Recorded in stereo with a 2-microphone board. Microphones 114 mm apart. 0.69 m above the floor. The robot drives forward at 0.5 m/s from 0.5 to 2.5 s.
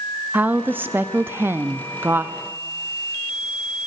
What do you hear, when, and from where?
0.3 s a woman speaking: 15° right (ahead or behind), 0.9 m